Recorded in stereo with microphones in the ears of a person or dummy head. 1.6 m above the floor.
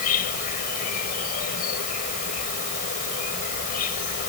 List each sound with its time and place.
0.0 s an insect: 40° left (ahead or behind)